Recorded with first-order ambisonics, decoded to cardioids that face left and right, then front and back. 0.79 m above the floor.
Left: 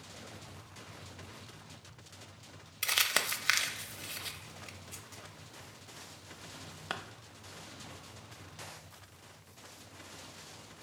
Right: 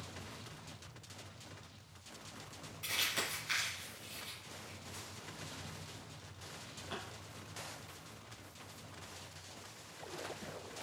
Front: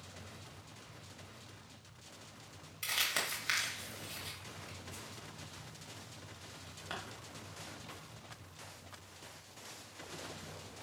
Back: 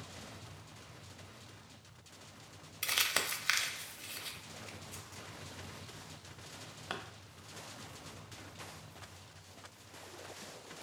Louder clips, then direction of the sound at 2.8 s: Left 6 dB, back 2 dB; 110° left.